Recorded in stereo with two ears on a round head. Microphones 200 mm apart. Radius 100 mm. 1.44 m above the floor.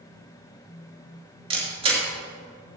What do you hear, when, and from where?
1.5 s a camera shutter: 25° right (ahead or behind), 3.5 m